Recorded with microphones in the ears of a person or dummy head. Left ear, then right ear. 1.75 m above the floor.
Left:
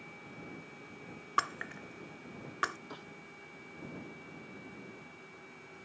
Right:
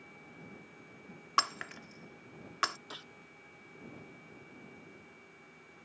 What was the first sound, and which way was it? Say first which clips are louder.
Breaking glass: right 2 dB; 25° right (ahead or behind).